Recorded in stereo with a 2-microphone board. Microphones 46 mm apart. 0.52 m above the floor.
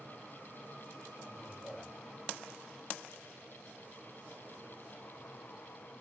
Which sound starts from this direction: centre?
A man speaking, at 1.3 s.